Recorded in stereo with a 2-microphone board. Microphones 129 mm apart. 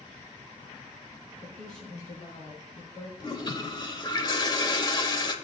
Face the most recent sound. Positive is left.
turn(degrees=35)  # may be behind; listen again after turning